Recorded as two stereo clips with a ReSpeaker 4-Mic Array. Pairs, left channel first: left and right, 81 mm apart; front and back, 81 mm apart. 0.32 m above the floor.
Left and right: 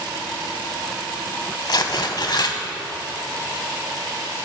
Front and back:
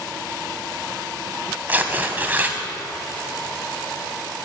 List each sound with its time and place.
1.7 s tearing paper: 115° left, 0.9 m